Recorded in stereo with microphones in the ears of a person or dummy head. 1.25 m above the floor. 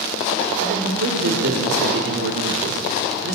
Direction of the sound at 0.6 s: 55° right (ahead or behind).